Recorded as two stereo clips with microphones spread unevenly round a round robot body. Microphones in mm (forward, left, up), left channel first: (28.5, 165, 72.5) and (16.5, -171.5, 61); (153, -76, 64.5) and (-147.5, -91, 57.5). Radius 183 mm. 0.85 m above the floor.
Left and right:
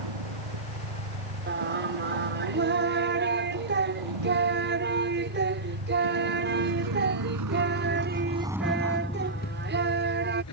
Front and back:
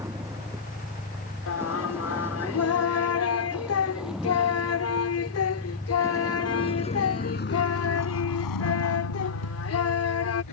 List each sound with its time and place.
0.0 s a vehicle: 95° right; by 10.5 s 45° left
1.5 s singing: 35° right